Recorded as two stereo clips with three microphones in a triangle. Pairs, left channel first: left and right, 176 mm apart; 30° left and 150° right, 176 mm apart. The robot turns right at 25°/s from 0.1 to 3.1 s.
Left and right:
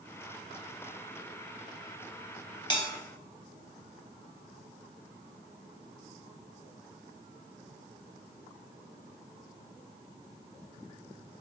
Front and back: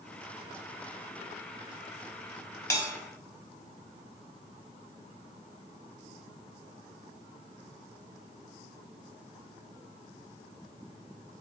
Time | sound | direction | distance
2.7 | a bell | 75° left | 0.5 m